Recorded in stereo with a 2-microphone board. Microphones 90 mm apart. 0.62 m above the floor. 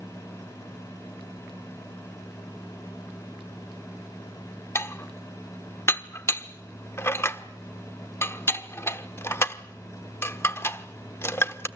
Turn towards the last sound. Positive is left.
turn(degrees=30)  # may be behind; listen again after turning